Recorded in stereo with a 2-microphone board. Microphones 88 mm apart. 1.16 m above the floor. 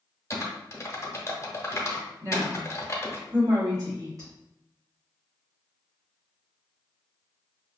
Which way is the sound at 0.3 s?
35° left (ahead or behind).